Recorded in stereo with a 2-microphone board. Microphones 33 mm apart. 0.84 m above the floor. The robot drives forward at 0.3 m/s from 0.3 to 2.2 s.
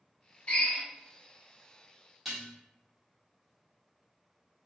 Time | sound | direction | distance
0.5 | a drill | 45° left (ahead or behind) | 0.8 m
2.2 | dishes clattering | 5° right (ahead or behind) | 0.9 m